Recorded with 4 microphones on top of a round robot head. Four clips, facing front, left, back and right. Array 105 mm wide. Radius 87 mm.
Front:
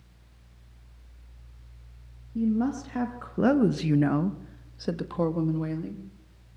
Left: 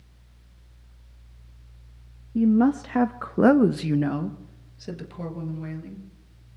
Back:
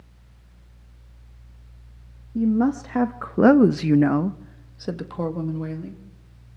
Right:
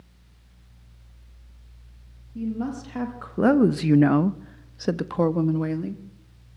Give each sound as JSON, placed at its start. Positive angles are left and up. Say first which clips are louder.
{"t": 2.4, "sound": "a woman speaking", "louder": "left 10 dB, back 5 dB", "azimuth_deg": 125, "distance_m": 1.4}